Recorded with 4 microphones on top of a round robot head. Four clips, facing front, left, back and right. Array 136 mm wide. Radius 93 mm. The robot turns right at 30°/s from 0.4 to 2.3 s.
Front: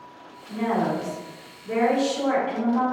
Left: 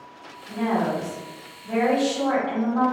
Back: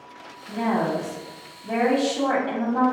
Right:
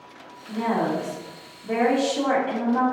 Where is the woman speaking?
175° right, 1.9 m; by 2.8 s 120° right, 1.9 m.